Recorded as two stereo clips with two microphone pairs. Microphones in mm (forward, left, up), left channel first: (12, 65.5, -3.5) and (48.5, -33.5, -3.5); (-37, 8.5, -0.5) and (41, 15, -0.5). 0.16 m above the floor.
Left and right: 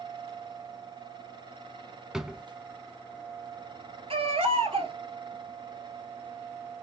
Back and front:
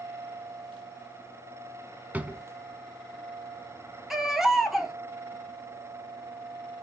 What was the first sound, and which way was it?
A drawer, 10° left.